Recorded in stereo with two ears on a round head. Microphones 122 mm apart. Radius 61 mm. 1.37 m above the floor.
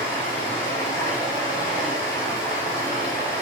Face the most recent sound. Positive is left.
turn(degrees=25)  # may be behind; listen again after turning